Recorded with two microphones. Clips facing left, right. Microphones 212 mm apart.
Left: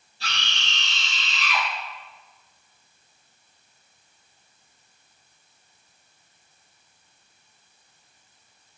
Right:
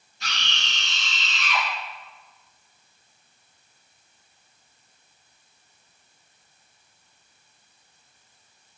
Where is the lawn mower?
I don't hear a lawn mower.